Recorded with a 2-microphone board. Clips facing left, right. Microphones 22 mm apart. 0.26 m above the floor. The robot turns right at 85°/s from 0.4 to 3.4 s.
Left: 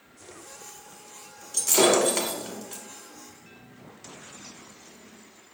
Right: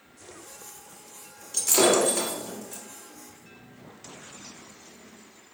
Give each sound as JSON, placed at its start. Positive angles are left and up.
{"t": 1.5, "sound": "breaking glass", "side_deg": -5, "distance_m": 0.9}